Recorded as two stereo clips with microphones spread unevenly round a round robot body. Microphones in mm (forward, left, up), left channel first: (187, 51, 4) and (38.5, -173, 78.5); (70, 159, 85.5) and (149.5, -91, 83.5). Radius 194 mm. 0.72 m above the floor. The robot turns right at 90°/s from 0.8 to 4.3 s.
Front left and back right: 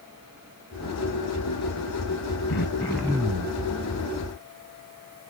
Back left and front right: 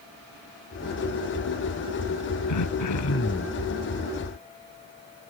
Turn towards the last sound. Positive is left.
turn(degrees=-95)